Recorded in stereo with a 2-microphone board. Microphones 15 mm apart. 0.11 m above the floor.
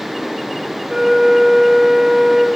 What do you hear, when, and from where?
0.9 s a flute: 40° right (ahead or behind), 1.4 m